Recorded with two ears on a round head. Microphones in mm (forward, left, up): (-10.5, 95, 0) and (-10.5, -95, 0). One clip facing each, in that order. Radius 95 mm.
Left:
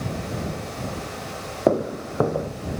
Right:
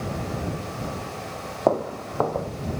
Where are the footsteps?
25° left (ahead or behind).